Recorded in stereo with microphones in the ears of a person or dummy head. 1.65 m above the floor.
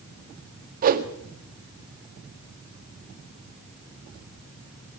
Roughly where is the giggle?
No giggle in this recording.